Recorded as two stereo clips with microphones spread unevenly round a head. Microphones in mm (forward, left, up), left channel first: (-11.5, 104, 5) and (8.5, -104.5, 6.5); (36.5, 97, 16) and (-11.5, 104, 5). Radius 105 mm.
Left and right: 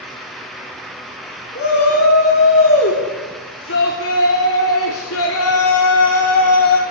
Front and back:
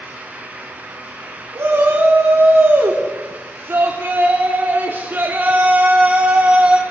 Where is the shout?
140° left, 4.5 m; by 6.8 s 100° left, 2.5 m.